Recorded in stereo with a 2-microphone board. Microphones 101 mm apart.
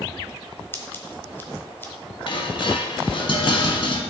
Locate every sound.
0.7 s scissors: 20° left (ahead or behind), 1.3 m
2.3 s dishes clattering: 60° left (ahead or behind), 1.3 m